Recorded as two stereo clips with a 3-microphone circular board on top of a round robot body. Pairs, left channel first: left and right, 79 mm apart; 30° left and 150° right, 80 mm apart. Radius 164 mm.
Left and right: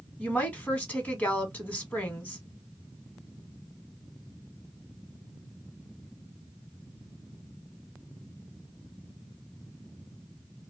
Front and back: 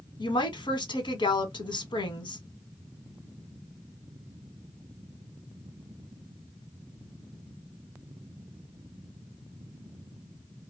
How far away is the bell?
No bell in this recording.